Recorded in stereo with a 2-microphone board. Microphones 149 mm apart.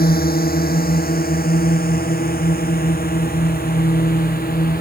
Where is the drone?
85° left; by 4.8 s 80° left.